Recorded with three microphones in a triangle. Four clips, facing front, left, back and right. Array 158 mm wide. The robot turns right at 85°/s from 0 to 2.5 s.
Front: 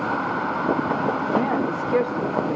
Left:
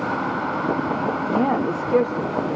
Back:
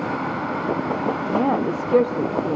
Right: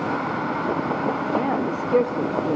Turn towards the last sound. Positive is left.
turn(degrees=-135)